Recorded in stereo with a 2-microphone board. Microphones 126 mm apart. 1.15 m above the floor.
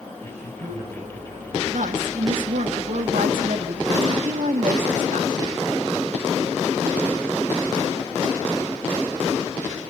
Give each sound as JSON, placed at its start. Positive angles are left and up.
{"t": 0.2, "sound": "a man speaking", "side_deg": -65, "distance_m": 6.5}
{"t": 1.7, "sound": "a woman speaking", "side_deg": -85, "distance_m": 1.9}